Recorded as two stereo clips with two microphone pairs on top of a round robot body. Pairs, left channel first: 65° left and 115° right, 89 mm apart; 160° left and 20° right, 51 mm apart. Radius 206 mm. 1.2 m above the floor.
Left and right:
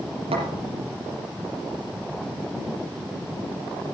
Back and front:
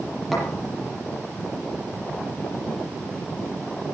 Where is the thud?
115° right, 6.5 m.